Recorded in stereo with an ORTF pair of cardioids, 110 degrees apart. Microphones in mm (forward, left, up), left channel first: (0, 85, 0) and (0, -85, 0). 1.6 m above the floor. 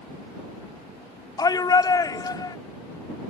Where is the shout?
25° left.